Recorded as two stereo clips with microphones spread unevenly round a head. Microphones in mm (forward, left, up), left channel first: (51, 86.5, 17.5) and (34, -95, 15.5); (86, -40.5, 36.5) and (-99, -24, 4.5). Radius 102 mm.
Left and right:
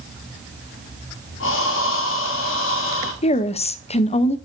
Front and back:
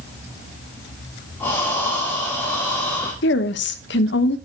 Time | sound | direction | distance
1.4 | breathing | 75° left | 2.5 m
3.2 | a woman speaking | 30° left | 0.8 m